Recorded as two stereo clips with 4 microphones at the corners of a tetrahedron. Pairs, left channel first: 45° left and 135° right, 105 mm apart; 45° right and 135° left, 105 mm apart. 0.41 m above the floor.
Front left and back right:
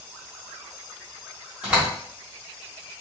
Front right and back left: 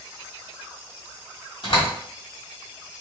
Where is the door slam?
60° right, 1.8 m.